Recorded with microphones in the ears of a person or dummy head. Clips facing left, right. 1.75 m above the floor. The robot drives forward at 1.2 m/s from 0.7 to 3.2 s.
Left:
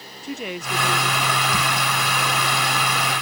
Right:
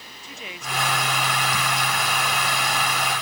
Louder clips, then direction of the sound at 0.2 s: Left 9 dB; 40° left (ahead or behind).